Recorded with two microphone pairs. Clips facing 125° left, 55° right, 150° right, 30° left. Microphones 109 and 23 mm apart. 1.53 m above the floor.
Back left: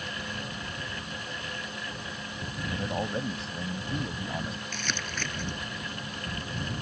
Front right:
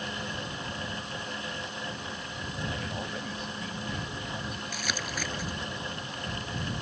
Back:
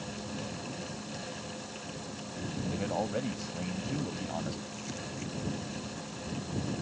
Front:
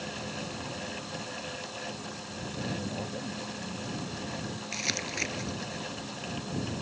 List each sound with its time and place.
2.7 s a man speaking: 175° right
4.7 s crumpling: 30° left